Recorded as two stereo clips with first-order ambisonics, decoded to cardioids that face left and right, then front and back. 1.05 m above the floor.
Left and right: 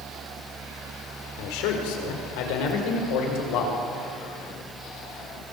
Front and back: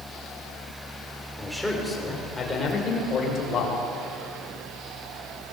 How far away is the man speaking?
About 4 m.